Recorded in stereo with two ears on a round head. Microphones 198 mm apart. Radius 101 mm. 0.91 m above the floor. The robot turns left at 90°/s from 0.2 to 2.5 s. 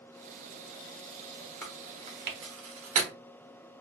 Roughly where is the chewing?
Centre.